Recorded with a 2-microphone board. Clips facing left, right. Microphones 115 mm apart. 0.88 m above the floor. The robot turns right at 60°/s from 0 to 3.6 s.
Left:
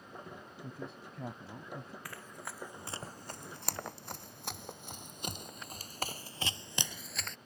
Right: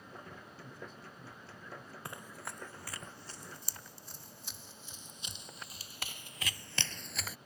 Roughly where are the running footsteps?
Right.